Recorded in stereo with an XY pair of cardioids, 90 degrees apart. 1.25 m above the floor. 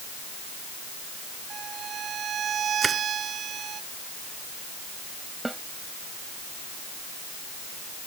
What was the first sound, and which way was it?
A violin, 60° right.